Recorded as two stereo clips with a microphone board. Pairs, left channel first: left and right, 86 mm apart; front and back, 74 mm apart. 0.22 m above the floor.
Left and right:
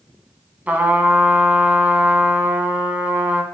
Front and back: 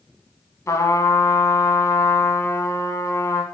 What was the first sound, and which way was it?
A trumpet, 25° right.